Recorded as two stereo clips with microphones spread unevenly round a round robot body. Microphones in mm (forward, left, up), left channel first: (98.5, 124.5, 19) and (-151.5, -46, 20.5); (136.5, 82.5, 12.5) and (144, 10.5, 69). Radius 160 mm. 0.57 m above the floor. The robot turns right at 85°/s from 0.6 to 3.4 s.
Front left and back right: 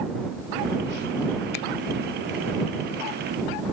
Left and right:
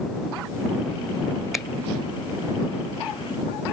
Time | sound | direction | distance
1.5 | a finger snap | 20° left | ?